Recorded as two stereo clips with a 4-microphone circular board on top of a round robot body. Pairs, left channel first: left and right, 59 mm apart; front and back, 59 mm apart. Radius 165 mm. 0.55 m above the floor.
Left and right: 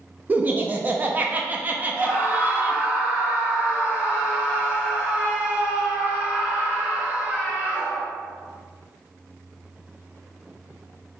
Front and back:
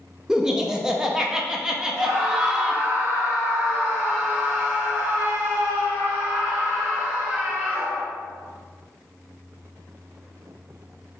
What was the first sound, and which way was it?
Laughter, 115° right.